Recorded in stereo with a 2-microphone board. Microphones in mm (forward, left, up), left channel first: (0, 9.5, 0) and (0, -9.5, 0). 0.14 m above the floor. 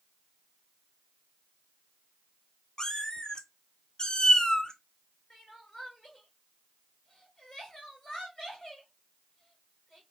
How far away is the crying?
About 2.5 m.